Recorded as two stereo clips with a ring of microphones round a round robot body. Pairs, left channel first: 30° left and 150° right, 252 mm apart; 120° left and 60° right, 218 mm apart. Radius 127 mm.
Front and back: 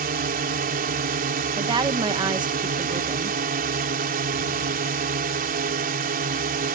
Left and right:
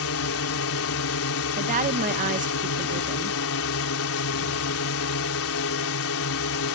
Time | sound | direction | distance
0.0 | a drone | 150° left | ?
1.6 | a woman speaking | 90° right | ?